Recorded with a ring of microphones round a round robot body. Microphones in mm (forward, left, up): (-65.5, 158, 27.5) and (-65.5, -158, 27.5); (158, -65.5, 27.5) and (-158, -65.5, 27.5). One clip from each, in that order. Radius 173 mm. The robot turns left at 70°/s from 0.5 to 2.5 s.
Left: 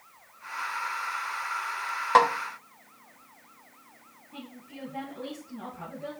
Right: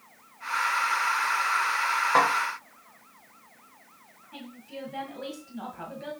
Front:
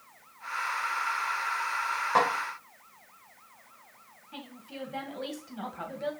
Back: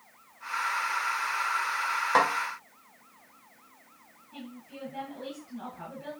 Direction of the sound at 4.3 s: 40° right.